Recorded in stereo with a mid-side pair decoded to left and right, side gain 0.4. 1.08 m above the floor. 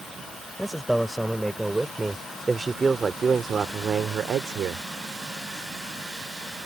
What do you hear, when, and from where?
0.6 s a man speaking: straight ahead; by 4.9 s 75° right